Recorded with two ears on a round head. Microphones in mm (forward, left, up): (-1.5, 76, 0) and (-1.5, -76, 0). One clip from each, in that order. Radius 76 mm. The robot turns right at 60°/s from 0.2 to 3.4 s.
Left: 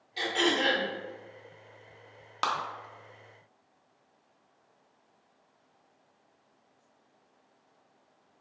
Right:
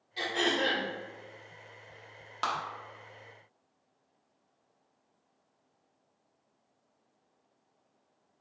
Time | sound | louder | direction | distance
0.2 | throat clearing | left 2 dB | 5° left | 1.2 m
2.4 | a clap | left 3 dB | 10° left (ahead or behind) | 0.7 m